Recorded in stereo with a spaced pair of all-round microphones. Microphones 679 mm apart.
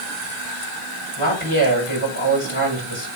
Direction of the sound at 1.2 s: 50° left (ahead or behind).